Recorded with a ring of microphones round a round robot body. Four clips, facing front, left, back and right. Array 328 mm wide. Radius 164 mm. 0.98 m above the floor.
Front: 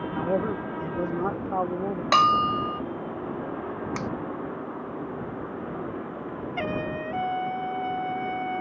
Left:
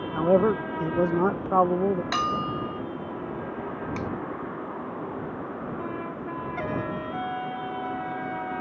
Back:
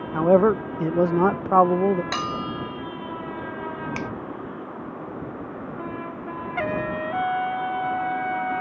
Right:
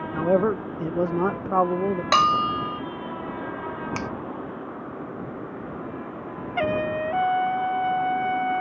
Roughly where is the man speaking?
Behind.